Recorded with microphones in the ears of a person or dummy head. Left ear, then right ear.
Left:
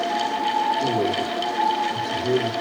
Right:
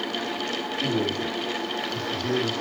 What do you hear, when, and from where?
0.8 s a man speaking: 35° left (ahead or behind), 4 m